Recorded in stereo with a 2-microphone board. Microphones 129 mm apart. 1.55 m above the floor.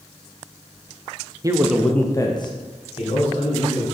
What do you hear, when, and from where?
1.4 s a man speaking: 30° right (ahead or behind), 0.6 m; by 3.8 s 60° left (ahead or behind), 1.9 m